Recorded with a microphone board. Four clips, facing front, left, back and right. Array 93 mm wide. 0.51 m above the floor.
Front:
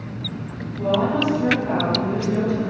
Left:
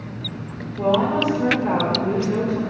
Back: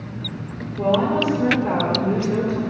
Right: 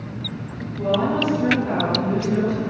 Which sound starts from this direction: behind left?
A woman speaking, at 0.8 s.